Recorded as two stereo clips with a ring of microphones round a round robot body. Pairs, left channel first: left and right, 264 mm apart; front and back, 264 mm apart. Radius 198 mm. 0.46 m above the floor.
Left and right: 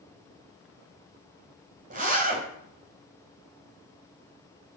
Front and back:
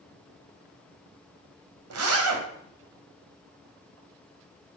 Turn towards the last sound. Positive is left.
turn(degrees=-155)